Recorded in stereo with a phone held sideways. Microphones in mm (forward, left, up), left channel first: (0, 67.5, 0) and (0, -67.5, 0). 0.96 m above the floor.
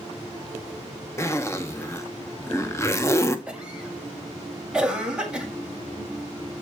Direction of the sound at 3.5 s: 5° right (ahead or behind).